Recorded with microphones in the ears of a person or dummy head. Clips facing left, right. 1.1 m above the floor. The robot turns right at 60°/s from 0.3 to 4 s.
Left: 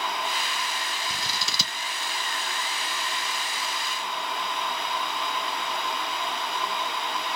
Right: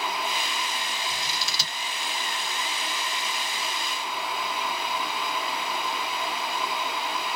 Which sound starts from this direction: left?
Scissors, at 1.1 s.